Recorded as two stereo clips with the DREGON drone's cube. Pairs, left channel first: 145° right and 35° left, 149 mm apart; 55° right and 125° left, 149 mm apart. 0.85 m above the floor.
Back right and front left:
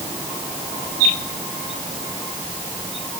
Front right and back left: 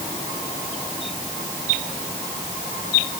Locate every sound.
Only background noise.